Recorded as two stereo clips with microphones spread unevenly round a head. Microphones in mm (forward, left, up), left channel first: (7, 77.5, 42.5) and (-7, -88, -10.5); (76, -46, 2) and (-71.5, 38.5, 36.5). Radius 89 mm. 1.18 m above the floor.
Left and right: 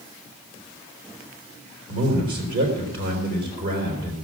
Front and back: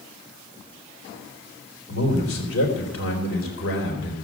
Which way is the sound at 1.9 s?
60° right.